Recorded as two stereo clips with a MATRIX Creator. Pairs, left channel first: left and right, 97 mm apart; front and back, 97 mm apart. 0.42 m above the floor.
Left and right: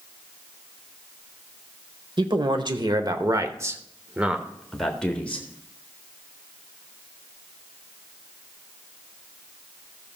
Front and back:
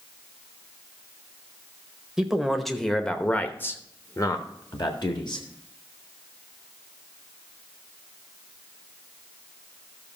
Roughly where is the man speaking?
Right.